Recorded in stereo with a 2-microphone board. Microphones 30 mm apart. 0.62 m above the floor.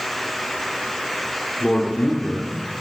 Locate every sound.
1.6 s a man speaking: 35° left (ahead or behind), 1.8 m